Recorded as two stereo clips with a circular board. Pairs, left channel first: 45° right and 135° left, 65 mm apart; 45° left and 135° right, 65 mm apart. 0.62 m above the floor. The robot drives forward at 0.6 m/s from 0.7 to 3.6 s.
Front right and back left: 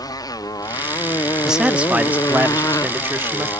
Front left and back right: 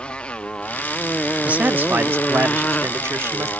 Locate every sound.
0.0 s a motorcycle: 30° right; by 3.6 s 20° right
1.4 s a man speaking: 155° right; by 3.5 s 175° right